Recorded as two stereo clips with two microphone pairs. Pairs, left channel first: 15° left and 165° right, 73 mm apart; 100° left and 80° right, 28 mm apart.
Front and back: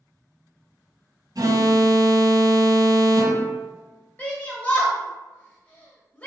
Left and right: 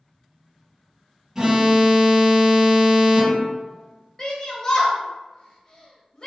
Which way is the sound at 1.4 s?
150° right.